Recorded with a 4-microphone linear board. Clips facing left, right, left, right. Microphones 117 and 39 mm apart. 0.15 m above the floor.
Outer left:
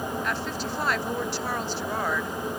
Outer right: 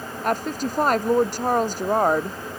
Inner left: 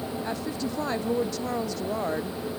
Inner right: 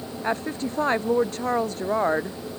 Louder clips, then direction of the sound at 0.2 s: Outer right 6 dB, inner right 9 dB; 45° right (ahead or behind).